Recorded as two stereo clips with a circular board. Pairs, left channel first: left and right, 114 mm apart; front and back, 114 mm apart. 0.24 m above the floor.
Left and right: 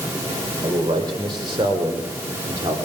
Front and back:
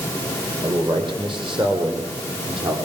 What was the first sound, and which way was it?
A man speaking, 135° right.